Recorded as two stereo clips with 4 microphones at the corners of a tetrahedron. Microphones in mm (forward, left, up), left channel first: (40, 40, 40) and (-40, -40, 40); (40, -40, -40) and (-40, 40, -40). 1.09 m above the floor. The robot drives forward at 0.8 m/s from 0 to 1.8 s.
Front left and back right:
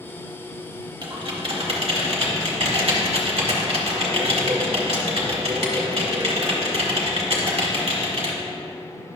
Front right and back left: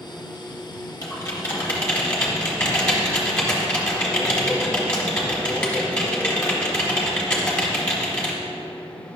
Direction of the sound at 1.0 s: 95° right.